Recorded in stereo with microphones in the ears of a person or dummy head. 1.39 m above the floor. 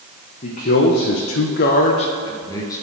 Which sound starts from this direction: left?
A man speaking, at 0.4 s.